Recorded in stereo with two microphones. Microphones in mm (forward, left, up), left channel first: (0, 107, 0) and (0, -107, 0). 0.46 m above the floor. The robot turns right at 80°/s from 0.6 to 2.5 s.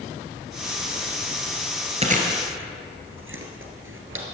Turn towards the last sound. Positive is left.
turn(degrees=-65)  # may be behind; listen again after turning